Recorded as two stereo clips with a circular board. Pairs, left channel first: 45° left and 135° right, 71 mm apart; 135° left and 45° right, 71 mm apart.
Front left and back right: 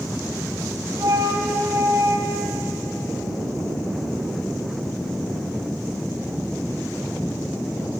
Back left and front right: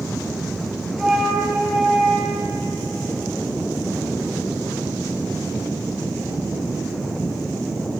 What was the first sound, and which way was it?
A flute, 130° right.